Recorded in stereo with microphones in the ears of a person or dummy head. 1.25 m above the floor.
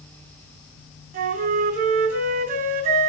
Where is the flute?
60° right (ahead or behind), 4 m.